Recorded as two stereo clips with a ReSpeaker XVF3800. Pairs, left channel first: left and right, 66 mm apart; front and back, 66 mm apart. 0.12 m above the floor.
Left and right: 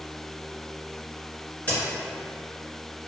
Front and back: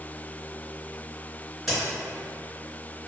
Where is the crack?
95° left, 1.8 m.